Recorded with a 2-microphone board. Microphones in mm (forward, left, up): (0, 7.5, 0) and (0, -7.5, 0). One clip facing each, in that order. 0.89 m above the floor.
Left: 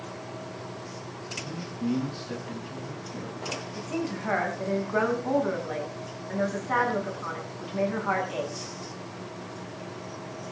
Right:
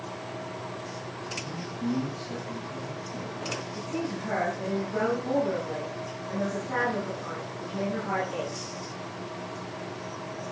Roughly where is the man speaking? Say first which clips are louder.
Left 2 dB; left.